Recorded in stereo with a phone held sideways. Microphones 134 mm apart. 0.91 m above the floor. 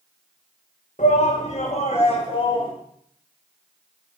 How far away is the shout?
About 1.9 m.